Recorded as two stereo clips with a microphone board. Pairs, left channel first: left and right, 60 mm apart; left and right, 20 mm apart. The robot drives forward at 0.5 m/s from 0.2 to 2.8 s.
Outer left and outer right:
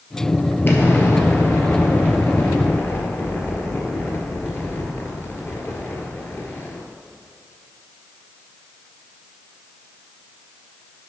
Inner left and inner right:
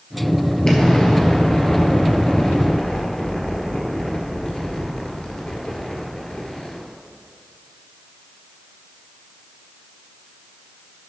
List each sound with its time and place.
0.7 s an explosion: 35° left (ahead or behind), 1.5 m; by 6.8 s 40° left (ahead or behind), 1.3 m